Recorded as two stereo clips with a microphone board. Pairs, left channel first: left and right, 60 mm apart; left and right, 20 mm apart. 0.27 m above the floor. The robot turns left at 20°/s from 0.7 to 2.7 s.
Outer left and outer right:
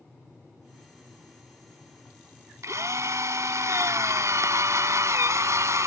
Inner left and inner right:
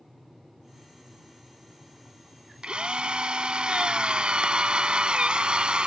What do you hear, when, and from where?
2.6 s a drill: 60° right (ahead or behind)